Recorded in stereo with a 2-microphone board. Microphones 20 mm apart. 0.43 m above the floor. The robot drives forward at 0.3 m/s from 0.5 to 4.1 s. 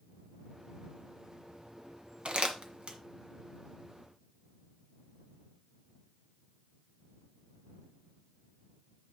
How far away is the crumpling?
About 1.8 m.